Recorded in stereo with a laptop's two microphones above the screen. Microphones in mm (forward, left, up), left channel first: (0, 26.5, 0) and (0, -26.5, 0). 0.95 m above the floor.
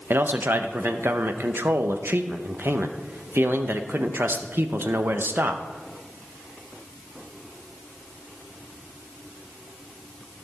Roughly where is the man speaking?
Right.